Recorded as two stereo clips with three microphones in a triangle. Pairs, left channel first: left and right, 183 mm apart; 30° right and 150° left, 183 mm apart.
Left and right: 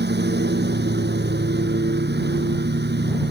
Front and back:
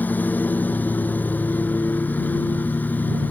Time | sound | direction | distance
0.0 | a lawn mower | 110° right | ?